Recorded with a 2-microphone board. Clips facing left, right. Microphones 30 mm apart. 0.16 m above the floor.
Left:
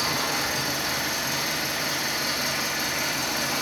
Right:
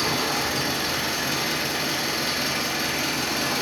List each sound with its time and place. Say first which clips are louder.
0.0 s an engine running: right 2 dB; 45° right (ahead or behind), 0.8 m